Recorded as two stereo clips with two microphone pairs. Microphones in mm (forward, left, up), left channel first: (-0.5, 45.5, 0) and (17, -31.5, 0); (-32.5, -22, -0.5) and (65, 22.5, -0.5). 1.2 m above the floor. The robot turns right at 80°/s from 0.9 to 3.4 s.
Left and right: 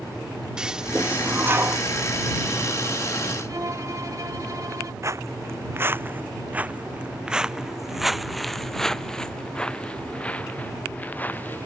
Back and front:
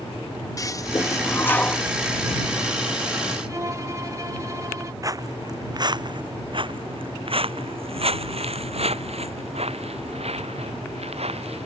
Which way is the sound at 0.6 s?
150° right.